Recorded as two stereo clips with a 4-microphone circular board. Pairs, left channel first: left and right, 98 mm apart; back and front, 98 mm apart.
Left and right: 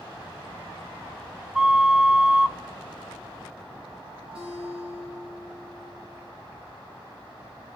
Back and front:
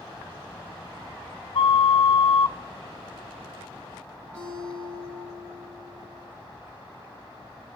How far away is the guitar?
About 8.5 m.